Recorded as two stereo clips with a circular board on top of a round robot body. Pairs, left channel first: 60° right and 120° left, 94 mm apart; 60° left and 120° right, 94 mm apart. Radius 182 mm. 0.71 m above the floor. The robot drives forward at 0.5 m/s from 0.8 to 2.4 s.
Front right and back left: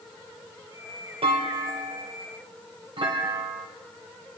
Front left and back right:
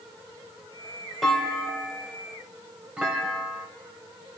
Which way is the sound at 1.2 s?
150° left.